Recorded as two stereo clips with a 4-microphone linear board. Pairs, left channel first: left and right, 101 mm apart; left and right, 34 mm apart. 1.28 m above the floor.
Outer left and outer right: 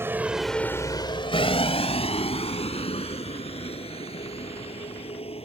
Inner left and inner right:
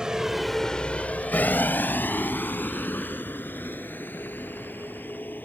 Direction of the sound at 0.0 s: 25° right (ahead or behind).